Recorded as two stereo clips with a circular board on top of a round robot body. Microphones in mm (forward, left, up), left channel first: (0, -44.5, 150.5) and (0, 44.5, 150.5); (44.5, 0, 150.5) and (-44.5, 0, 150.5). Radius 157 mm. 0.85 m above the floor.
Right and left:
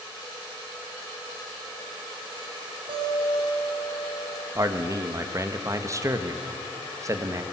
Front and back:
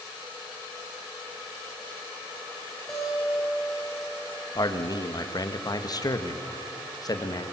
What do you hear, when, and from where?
2.9 s a guitar: 90° left, 6.5 m
4.5 s a man speaking: 40° left, 1.6 m